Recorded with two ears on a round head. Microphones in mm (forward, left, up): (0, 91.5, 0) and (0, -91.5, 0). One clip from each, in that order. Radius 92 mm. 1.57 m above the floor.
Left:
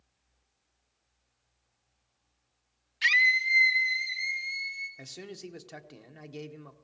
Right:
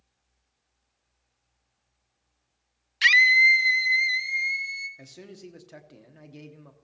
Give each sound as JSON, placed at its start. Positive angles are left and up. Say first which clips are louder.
{"t": 3.0, "sound": "a scream", "louder": "right 7 dB", "side_deg": -45, "distance_m": 0.6}
{"t": 5.0, "sound": "a man speaking", "louder": "left 2 dB", "side_deg": 20, "distance_m": 0.9}